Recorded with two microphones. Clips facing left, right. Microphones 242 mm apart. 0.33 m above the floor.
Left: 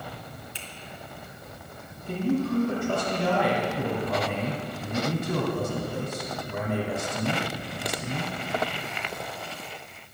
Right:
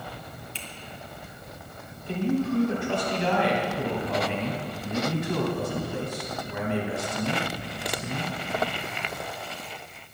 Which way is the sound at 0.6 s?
15° left (ahead or behind).